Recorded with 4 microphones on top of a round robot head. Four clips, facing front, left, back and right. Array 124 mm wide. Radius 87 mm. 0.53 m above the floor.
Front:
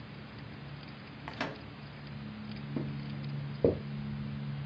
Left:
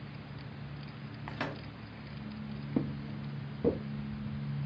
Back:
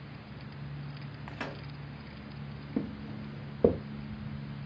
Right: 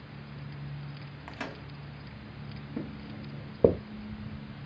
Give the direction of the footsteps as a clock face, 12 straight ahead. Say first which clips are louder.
Left 4 dB, back 4 dB; 8 o'clock.